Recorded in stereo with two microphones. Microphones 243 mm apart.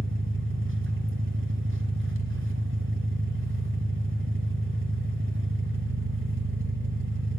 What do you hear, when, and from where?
0.0 s an engine running: 55° right (ahead or behind), 0.8 m